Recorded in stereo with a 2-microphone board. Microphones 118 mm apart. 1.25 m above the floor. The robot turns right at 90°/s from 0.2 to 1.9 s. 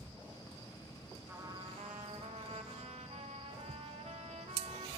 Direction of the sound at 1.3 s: 165° right.